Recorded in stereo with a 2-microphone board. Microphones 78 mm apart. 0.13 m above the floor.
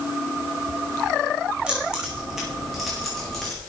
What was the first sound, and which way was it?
Keys jangling, 15° right (ahead or behind).